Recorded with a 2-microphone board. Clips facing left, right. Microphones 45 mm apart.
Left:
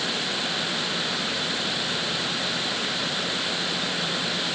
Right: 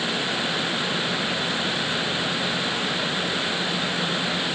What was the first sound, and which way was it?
Only background noise.